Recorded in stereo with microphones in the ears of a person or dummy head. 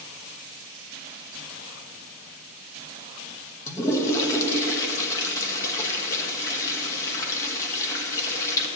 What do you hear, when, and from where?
3.7 s a toilet flushing: 15° left (ahead or behind), 1.0 m